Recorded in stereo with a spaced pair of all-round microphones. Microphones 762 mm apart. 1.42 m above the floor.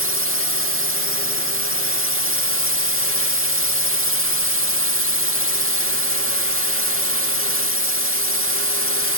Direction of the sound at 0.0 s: 15° right (ahead or behind).